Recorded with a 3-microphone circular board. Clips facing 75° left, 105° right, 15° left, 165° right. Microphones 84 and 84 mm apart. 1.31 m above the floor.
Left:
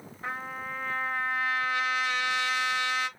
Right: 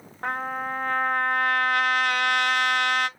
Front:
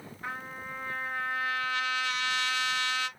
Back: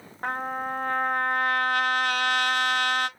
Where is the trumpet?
135° right, 0.9 m.